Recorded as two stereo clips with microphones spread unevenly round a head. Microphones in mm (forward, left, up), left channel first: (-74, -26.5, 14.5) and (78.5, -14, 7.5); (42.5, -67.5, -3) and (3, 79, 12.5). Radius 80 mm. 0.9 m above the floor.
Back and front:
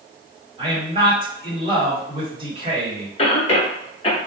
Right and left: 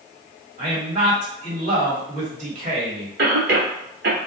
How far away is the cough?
About 0.9 m.